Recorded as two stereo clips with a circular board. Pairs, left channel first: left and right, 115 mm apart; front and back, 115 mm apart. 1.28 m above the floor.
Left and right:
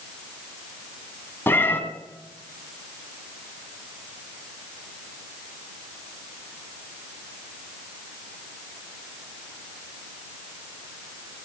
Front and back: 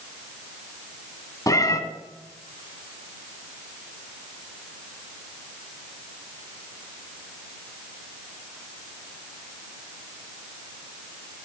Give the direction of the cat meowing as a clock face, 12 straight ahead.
11 o'clock.